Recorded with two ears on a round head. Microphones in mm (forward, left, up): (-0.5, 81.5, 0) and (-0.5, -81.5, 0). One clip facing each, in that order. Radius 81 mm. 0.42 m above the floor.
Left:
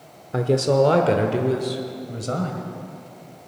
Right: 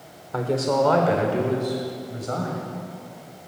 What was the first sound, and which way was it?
A woman speaking, 25° left (ahead or behind).